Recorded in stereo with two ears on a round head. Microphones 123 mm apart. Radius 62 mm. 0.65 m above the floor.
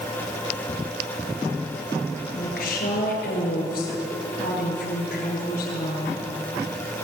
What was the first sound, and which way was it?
A woman speaking, 80° left.